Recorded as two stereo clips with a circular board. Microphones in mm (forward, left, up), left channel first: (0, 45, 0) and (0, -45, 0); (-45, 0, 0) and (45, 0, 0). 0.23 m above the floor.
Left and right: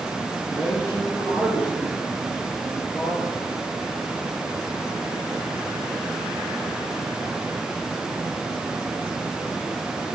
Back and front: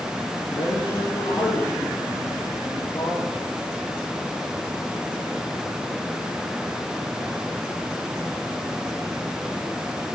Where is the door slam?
I don't hear a door slam.